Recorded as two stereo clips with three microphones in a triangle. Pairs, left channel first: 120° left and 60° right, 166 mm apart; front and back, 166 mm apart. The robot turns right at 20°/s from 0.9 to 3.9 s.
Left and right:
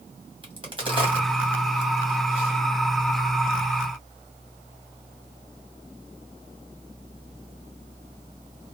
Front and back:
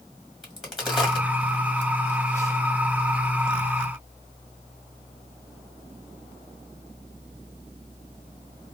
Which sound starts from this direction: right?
A crack, at 0.4 s.